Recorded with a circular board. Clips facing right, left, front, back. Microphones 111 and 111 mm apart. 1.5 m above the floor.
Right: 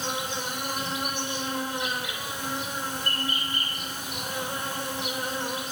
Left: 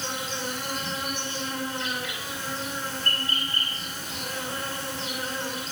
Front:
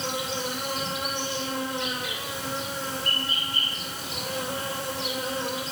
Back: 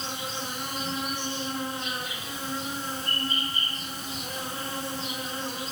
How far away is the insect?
About 8.5 m.